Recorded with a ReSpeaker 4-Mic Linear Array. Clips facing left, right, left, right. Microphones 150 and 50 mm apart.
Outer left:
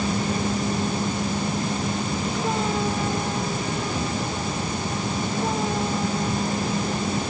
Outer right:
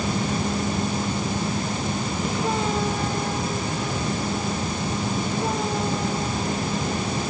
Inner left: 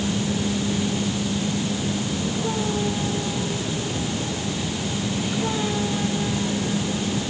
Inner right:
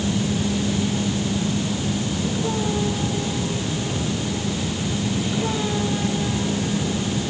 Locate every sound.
Only background noise.